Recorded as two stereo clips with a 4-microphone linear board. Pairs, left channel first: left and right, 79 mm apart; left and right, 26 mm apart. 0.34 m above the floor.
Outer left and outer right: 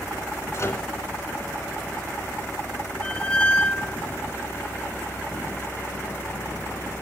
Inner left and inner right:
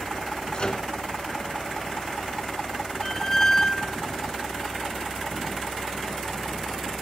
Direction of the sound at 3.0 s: 15° left (ahead or behind).